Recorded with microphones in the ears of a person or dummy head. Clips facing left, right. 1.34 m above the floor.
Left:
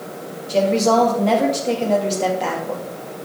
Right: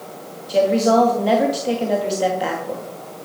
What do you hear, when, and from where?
0.5 s a woman speaking: 5° right (ahead or behind), 2.5 m